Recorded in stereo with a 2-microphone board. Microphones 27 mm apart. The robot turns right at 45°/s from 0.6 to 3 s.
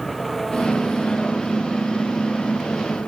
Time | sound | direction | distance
0.0 | an engine running | 5° left | ?